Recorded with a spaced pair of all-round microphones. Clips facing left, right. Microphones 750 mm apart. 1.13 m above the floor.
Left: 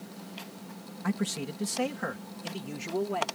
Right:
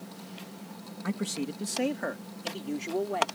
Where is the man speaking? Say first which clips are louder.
Even; 30° left (ahead or behind); by 3.2 s 40° left (ahead or behind).